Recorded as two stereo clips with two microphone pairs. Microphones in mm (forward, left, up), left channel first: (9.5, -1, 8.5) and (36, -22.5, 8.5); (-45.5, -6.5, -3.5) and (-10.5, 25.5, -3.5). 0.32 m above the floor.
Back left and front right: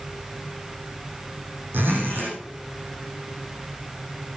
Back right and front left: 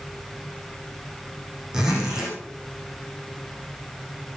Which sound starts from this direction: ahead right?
A zipper, at 1.7 s.